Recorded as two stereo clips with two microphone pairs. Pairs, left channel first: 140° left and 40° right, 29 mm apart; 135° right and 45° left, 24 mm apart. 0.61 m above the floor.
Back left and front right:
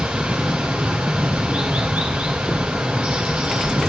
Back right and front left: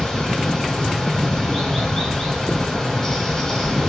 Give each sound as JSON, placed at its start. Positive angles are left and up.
{"t": 0.0, "sound": "running water", "azimuth_deg": -65, "distance_m": 3.0}